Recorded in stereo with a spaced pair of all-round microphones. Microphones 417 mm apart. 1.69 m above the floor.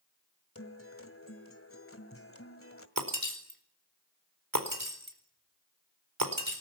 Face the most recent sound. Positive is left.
turn(degrees=-50)  # may be behind; listen again after turning